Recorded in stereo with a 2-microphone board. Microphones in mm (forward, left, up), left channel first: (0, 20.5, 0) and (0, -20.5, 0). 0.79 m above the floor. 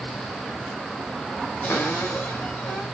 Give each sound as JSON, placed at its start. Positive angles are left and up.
{"t": 1.6, "sound": "a cupboard door", "side_deg": 65, "distance_m": 3.5}